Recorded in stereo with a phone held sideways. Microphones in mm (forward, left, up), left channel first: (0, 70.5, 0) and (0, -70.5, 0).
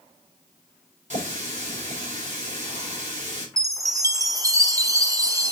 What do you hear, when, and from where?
1.1 s a running tap: 55° right (ahead or behind), 3 m
3.6 s a chime: 25° right (ahead or behind), 0.7 m